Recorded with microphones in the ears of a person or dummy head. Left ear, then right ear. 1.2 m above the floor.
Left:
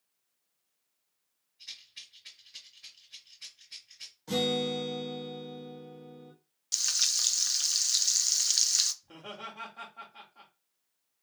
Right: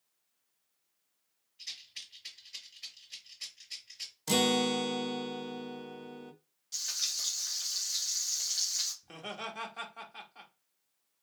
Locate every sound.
1.6 s a rattle: 40° right (ahead or behind), 1.7 m
4.3 s a guitar: 65° right (ahead or behind), 0.6 m
6.7 s frying: 35° left (ahead or behind), 0.6 m
9.0 s laughter: 60° right (ahead or behind), 1.2 m